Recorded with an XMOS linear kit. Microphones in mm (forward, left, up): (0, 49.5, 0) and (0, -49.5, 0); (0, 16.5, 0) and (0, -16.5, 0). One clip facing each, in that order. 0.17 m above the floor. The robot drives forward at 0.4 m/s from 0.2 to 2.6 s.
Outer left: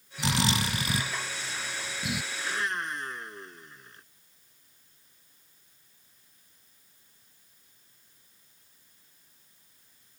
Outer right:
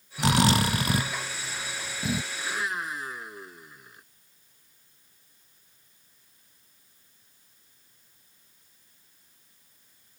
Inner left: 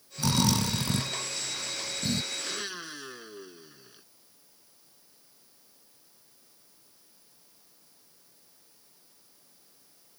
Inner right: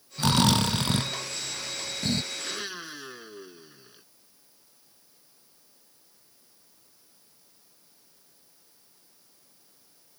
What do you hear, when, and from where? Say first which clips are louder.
0.2 s snoring: outer right 6 dB, inner right 4 dB; 60° right (ahead or behind); by 2.2 s 35° right (ahead or behind)
2.3 s a blender: even, inner right 1 dB; 5° right (ahead or behind)